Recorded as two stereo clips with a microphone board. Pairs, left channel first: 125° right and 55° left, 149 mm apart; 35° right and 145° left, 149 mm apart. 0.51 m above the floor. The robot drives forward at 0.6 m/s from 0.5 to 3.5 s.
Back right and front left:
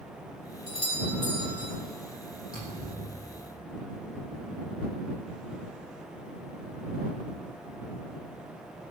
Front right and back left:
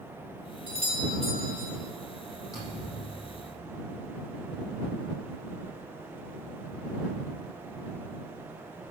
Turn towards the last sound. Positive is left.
turn(degrees=-105)